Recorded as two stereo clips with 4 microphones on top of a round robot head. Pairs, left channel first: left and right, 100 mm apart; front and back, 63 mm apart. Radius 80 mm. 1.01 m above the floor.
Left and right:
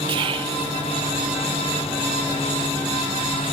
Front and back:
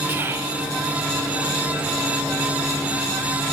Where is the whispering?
120° right, 0.7 m.